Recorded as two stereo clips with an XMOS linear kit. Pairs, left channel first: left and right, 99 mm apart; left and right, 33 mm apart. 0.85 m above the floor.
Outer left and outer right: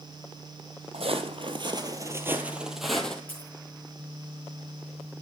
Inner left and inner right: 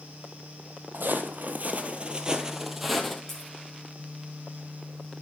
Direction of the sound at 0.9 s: 65° right (ahead or behind).